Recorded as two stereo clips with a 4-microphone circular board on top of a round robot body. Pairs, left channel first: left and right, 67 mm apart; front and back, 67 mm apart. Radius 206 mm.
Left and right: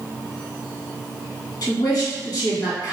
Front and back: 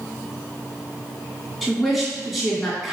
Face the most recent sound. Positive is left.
turn(degrees=95)